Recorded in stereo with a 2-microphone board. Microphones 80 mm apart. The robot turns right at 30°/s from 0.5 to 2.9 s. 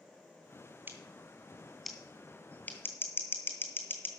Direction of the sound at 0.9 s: 25° right (ahead or behind).